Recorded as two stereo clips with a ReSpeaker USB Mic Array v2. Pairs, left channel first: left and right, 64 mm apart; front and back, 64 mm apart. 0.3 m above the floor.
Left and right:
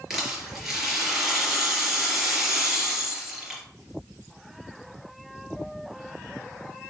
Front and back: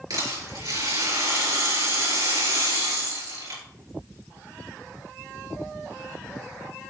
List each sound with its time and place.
0.1 s a rattle: 175° right, 3.5 m